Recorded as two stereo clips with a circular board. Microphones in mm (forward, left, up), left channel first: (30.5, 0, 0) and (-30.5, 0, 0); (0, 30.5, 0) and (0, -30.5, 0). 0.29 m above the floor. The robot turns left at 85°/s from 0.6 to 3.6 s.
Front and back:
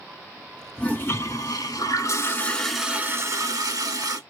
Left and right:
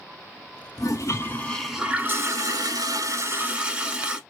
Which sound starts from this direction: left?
A toilet flushing, at 0.8 s.